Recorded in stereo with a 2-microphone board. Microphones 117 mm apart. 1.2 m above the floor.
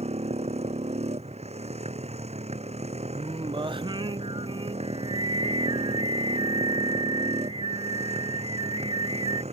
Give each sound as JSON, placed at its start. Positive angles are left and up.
{"t": 0.0, "sound": "a motorcycle", "side_deg": -65}
{"t": 3.1, "sound": "singing", "side_deg": -45}